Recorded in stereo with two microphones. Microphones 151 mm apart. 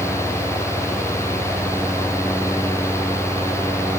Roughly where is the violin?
I don't hear a violin.